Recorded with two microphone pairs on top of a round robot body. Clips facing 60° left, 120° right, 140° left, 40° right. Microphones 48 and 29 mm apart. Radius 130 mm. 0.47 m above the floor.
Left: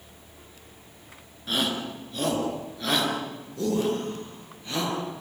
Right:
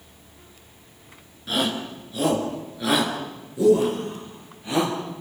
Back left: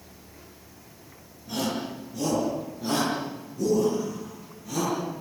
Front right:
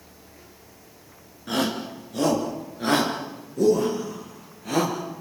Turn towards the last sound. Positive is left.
turn(degrees=-45)